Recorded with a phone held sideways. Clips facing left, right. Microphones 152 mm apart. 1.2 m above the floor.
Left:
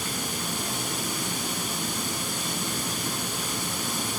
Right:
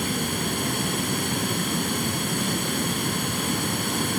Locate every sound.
0.0 s running water: 60° right (ahead or behind), 2 m